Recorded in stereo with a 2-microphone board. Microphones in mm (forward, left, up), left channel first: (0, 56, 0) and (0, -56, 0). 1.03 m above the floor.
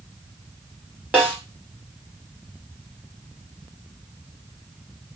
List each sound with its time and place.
1.1 s a snare drum: 15° right (ahead or behind), 1.9 m